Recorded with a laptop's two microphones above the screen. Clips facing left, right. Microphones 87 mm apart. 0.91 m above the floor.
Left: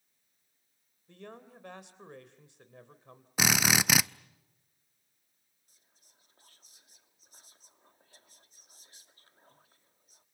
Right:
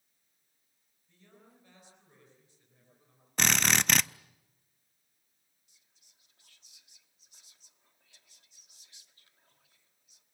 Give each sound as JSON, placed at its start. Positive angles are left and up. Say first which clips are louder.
{"t": 1.1, "sound": "a man speaking", "louder": "left 12 dB", "side_deg": 70, "distance_m": 3.0}
{"t": 3.4, "sound": "a drill", "louder": "left 1 dB", "side_deg": 5, "distance_m": 0.5}
{"t": 5.7, "sound": "whispering", "louder": "left 5 dB", "side_deg": 40, "distance_m": 1.9}